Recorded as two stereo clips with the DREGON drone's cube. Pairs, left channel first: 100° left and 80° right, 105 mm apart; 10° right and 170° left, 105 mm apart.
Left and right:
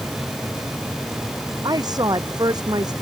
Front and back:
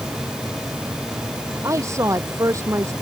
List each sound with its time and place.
1.6 s a woman speaking: 130° right